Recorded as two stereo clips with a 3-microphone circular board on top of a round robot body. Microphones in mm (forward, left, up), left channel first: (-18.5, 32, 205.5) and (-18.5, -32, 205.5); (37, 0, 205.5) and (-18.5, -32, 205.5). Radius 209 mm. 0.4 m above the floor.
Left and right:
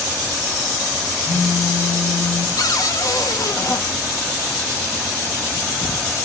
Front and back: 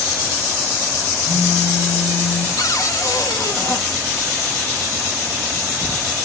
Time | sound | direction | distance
1.3 | a phone buzzing | 45° left | 7 m
2.6 | a cupboard door | 65° left | 0.9 m